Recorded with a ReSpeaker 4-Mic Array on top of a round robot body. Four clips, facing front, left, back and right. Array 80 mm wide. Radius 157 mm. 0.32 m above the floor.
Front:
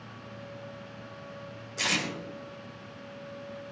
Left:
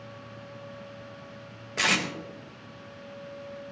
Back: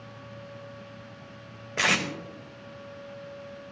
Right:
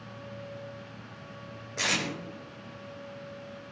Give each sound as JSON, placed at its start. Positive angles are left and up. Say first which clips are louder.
{"t": 1.8, "sound": "tape being pulled", "louder": "left 4 dB, back 6 dB", "azimuth_deg": 165, "distance_m": 1.1}